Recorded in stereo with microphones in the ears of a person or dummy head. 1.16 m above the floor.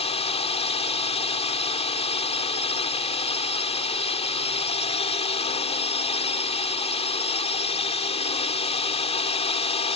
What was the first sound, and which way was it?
A drone, 30° left (ahead or behind).